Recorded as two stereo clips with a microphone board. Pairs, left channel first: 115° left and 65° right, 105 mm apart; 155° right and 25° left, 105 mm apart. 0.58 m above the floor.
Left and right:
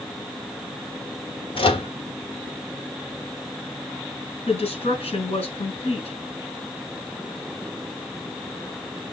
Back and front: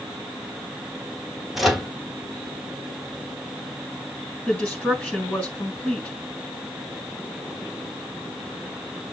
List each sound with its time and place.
1.6 s a microwave: 110° left, 1.1 m
4.5 s a woman speaking: 125° left, 3 m